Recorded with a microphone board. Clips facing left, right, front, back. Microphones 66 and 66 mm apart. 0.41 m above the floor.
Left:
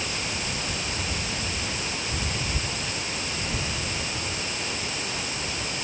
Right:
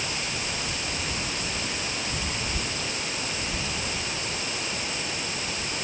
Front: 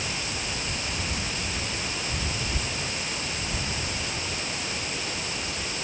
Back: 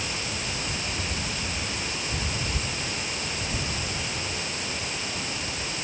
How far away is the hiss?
No hiss in this recording.